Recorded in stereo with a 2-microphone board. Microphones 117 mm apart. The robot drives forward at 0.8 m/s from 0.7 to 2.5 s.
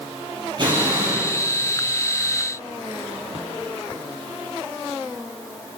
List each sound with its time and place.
0.6 s an explosion: 40° right (ahead or behind), 5.5 m